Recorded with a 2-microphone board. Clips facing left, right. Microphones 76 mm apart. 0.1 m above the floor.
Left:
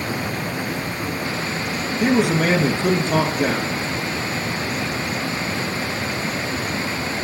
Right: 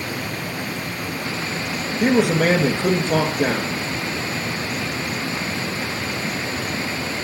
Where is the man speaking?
55° right (ahead or behind), 2 m.